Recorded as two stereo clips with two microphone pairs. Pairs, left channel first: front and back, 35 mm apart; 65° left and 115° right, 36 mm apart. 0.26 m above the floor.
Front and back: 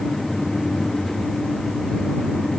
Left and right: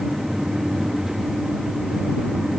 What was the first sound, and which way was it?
Only background noise.